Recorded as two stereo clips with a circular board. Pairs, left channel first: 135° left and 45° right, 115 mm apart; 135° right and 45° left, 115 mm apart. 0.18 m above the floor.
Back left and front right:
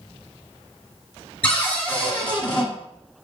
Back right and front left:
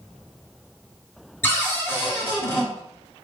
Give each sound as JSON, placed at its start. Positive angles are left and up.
{"t": 1.4, "sound": "a cupboard door", "azimuth_deg": -165, "distance_m": 1.5}